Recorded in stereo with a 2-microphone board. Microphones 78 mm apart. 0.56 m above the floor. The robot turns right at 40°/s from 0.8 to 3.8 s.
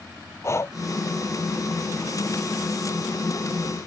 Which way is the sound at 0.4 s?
40° left (ahead or behind).